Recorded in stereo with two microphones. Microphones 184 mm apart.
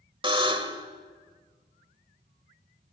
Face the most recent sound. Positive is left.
turn(degrees=-30)  # may be behind; listen again after turning